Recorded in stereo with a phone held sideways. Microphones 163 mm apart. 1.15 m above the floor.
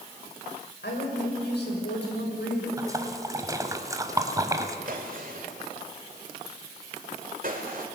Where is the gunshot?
55° right (ahead or behind), 2.5 m.